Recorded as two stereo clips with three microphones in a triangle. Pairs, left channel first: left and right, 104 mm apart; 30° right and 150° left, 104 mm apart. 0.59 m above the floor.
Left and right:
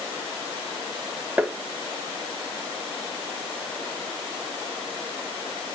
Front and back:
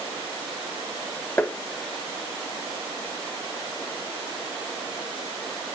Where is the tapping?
50° right, 0.5 m.